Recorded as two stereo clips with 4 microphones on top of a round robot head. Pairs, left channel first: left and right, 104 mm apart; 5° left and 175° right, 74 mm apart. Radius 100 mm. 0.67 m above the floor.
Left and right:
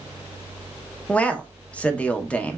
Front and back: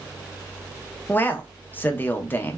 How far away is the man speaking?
About 0.6 m.